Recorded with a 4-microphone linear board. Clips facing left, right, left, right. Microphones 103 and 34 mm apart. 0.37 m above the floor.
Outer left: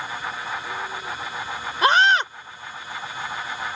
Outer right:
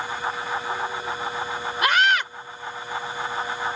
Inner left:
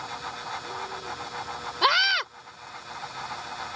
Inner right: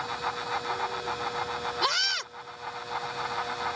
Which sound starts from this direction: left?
A scream, at 1.8 s.